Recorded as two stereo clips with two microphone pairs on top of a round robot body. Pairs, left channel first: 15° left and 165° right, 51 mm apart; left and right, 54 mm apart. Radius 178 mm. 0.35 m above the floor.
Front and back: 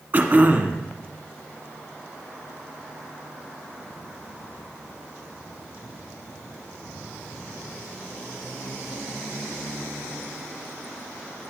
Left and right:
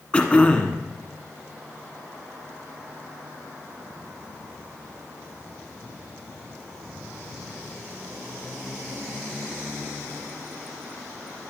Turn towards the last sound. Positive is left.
turn(degrees=150)